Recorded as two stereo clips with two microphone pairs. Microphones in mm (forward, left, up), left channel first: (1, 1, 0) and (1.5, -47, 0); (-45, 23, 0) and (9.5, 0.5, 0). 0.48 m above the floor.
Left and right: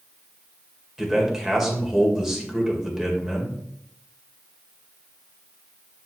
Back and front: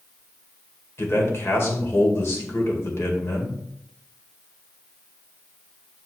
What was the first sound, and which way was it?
A man speaking, 170° right.